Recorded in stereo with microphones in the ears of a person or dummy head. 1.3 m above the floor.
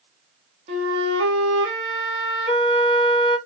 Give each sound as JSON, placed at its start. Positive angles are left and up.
{"t": 0.7, "sound": "a flute", "side_deg": -35, "distance_m": 1.2}